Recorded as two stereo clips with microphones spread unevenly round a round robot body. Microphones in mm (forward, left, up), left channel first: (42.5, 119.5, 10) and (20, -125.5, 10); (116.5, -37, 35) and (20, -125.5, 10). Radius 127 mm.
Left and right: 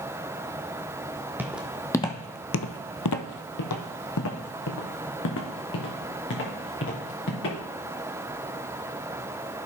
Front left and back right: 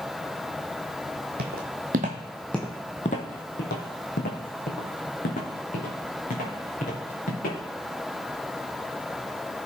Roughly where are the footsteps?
Behind.